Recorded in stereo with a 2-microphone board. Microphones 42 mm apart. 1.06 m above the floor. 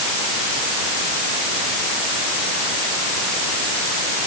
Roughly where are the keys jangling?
I don't hear keys jangling.